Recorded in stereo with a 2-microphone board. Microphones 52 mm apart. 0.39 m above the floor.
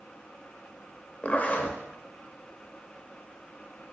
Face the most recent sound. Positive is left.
turn(degrees=35)  # may be behind; listen again after turning